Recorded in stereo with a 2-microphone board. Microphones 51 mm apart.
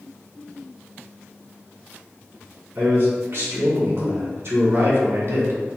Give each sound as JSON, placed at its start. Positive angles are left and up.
{"t": 2.8, "sound": "a man speaking", "side_deg": -65, "distance_m": 1.9}